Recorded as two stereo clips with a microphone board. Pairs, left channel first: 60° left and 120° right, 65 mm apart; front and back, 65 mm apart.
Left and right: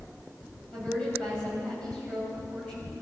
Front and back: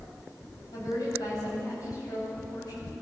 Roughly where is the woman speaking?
Ahead.